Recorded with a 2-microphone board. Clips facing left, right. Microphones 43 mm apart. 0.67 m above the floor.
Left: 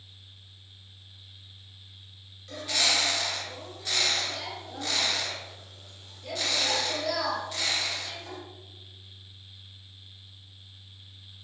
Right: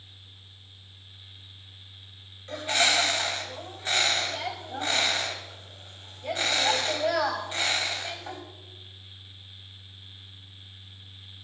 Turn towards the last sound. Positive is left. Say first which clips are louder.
# right 4 dB
turn(degrees=-30)  # may be behind; listen again after turning